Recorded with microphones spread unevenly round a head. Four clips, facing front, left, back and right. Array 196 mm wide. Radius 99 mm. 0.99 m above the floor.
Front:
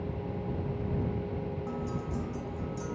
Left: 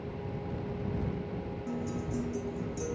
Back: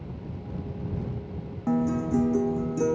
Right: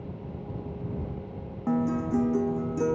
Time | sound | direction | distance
1.7 | a guitar | 145° right | ?